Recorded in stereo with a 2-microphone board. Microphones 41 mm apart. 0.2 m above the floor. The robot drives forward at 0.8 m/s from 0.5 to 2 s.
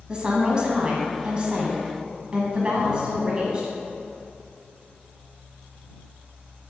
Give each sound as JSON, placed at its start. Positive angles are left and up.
{"t": 0.1, "sound": "a woman speaking", "side_deg": -20, "distance_m": 1.8}